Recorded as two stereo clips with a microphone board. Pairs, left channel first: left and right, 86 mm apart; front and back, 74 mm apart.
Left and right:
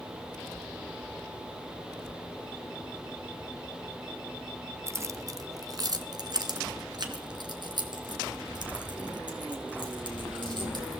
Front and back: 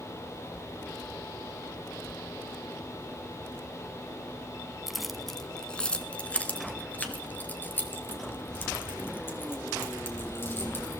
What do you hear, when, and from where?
4.9 s keys jangling: 100° right, 0.7 m; by 11.0 s 60° right, 3.5 m